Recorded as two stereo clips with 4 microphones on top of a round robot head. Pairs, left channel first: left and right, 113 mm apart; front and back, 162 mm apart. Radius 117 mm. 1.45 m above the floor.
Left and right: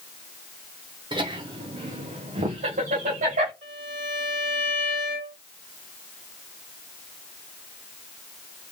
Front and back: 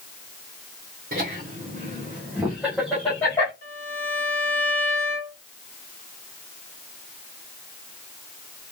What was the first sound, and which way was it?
Laughter, 135° right.